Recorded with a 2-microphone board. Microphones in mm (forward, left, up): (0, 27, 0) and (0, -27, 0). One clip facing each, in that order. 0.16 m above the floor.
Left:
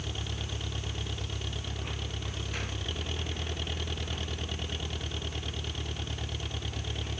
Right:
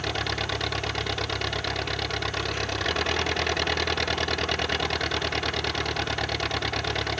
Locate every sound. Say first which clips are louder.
0.0 s an engine running: right 11 dB; 75° right (ahead or behind)